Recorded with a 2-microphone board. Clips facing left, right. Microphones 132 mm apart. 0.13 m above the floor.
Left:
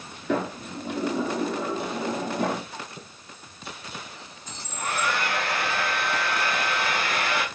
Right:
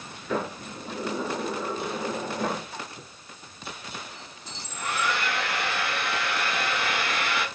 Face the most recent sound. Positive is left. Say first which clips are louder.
# left 1 dB
turn(degrees=50)  # may be behind; listen again after turning